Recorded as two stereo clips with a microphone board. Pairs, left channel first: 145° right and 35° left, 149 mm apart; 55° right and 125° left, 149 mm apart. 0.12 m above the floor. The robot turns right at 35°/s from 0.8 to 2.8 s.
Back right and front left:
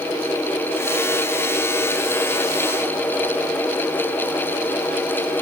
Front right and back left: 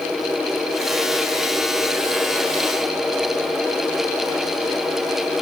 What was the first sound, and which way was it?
Only background noise.